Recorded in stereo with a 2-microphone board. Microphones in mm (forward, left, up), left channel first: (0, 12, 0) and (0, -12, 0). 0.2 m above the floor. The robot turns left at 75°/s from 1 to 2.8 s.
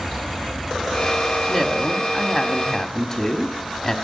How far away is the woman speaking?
About 1.0 m.